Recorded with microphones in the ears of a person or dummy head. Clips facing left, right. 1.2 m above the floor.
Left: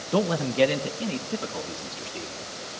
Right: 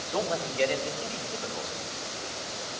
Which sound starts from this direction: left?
A man speaking, at 0.1 s.